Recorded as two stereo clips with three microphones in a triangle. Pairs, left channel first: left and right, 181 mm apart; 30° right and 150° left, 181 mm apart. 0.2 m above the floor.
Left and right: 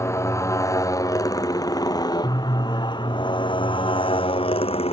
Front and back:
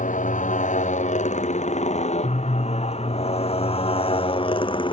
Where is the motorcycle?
15° left; by 4.9 s 30° left.